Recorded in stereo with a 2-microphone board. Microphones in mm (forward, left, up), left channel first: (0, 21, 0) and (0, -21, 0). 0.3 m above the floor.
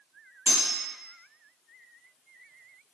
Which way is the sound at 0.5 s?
45° right (ahead or behind).